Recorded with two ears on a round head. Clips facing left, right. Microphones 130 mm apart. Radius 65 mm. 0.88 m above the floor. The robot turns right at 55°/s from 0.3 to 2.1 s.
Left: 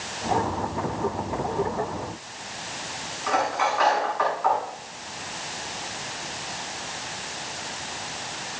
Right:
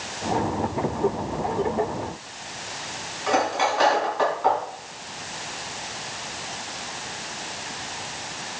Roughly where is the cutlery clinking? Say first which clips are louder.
Right 2 dB; right.